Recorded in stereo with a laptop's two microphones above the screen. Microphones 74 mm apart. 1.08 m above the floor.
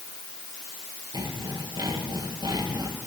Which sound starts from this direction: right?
Sawing, at 1.1 s.